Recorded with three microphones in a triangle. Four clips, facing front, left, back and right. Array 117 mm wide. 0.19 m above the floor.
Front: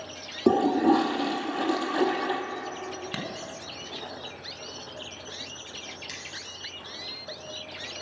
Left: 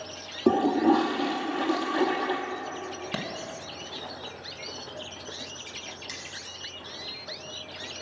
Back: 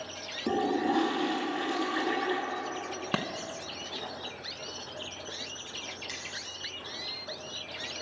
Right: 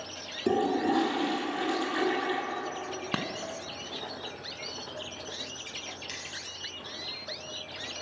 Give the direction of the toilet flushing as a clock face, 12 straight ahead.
11 o'clock.